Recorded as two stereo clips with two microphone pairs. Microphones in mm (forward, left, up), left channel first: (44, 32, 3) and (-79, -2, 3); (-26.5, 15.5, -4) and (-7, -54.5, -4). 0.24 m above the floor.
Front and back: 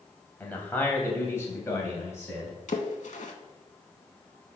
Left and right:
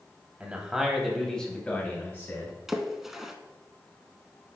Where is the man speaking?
45° right, 1.0 m; by 2.5 s 75° left, 1.3 m.